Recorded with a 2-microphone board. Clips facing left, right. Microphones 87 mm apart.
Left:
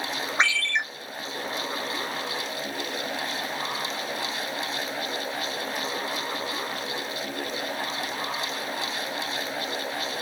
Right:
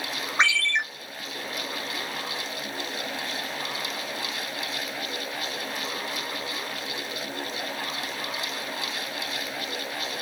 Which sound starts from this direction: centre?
A ringtone, at 0.4 s.